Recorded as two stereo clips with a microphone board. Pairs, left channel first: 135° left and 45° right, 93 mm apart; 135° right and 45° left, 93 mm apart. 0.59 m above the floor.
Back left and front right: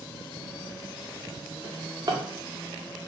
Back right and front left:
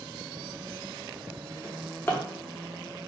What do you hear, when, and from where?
1.6 s a drawer: 75° right, 0.6 m